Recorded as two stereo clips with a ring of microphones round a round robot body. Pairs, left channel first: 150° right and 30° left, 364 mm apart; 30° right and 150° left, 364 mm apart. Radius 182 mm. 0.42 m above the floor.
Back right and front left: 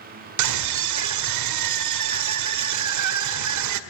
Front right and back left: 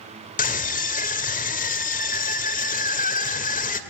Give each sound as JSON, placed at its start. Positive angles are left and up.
{"t": 0.4, "sound": "a scream", "azimuth_deg": 30, "distance_m": 1.9}